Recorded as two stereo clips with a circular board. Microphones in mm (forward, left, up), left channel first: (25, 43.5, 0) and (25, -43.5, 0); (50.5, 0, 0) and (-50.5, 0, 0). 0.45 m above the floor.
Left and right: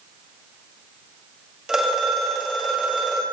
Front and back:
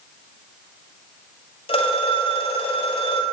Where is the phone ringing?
10° right, 1.9 m.